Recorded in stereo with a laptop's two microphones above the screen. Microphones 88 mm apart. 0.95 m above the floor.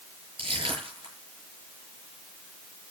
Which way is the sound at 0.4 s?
75° right (ahead or behind).